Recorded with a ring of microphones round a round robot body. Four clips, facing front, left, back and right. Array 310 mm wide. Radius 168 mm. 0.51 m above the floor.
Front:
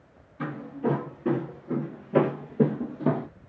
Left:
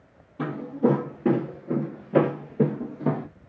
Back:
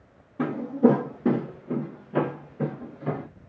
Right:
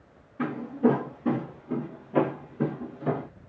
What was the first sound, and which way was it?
Footsteps, 160° left.